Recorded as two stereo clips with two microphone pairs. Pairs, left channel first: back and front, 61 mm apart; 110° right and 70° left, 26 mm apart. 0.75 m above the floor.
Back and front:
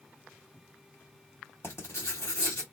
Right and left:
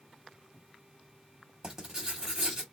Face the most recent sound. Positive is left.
turn(degrees=140)